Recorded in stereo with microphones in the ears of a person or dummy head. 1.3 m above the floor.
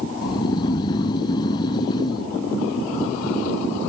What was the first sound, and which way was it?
Snoring, 20° left (ahead or behind).